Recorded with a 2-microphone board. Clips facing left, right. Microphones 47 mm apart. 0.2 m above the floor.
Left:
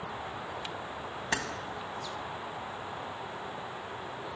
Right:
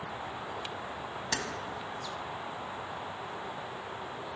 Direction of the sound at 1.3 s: 25° left (ahead or behind).